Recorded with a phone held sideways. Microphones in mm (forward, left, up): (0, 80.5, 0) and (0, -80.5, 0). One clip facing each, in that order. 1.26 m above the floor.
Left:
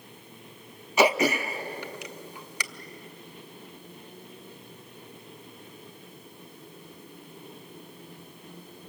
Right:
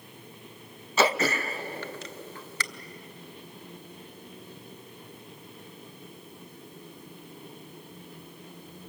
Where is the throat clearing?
15° left (ahead or behind), 0.8 m.